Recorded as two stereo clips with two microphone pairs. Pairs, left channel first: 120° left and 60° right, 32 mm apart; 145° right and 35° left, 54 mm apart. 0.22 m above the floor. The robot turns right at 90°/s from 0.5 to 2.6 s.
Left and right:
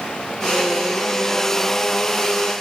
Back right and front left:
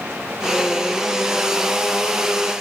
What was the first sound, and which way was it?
Only background noise.